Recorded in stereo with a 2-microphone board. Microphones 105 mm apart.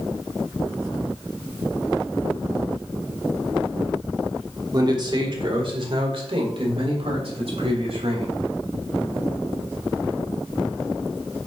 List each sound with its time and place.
4.7 s a man speaking: 40° right (ahead or behind), 1.6 m; by 8.3 s 70° right (ahead or behind), 4 m